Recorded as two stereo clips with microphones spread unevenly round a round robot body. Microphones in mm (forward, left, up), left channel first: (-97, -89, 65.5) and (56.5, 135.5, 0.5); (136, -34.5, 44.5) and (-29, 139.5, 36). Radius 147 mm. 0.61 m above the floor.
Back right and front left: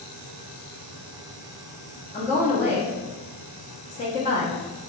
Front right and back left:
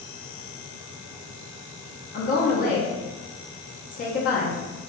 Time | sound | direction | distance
2.1 | a woman speaking | 55° right | 0.8 m